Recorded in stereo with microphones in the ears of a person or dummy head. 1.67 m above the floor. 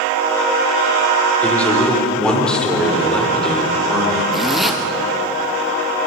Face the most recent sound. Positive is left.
turn(degrees=0)  # may be behind; listen again after turning